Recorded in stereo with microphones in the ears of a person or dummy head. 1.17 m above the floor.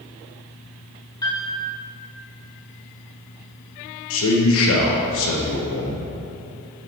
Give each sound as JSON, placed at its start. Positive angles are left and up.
{"t": 1.2, "sound": "a piano", "side_deg": 20, "distance_m": 1.2}
{"t": 4.1, "sound": "a man speaking", "side_deg": 70, "distance_m": 0.9}